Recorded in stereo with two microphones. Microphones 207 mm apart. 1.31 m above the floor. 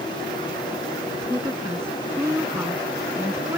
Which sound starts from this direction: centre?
A woman speaking, at 1.1 s.